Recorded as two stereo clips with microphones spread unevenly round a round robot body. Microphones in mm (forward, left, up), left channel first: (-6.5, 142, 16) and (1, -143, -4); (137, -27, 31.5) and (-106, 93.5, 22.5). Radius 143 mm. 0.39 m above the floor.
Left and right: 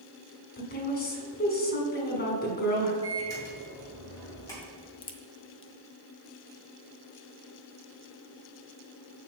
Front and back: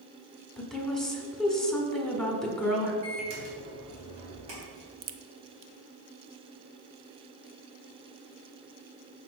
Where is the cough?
No cough in this recording.